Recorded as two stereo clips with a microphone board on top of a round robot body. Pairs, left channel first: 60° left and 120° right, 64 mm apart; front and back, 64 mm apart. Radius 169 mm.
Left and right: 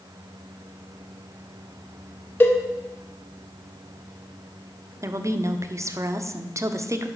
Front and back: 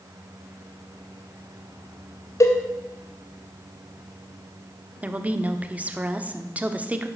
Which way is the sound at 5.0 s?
115° right.